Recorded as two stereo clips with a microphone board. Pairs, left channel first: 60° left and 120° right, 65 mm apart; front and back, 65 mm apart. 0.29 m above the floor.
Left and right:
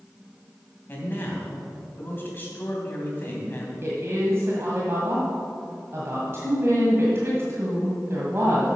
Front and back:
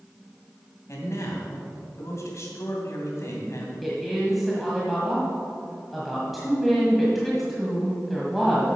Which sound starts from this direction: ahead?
A man speaking, at 0.9 s.